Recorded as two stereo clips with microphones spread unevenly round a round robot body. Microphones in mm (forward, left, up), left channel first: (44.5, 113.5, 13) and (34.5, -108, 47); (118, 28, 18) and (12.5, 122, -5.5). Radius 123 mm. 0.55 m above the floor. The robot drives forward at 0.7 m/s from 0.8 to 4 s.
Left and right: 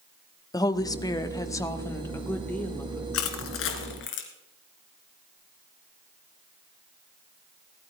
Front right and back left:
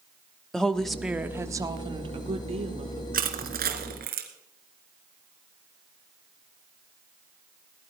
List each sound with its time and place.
0.5 s a woman speaking: 60° left, 0.9 m; by 3.0 s 165° left, 1.6 m
3.1 s crushing: 120° left, 2.0 m; by 4.3 s 135° left, 2.5 m